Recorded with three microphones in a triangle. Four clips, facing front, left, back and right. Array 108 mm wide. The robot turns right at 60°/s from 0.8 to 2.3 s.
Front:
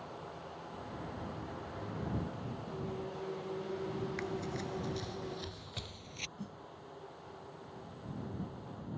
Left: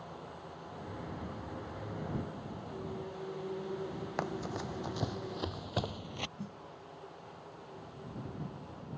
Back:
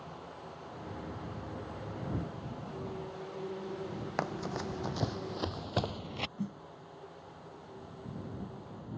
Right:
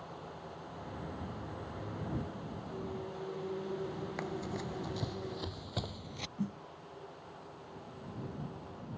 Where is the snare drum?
120° right.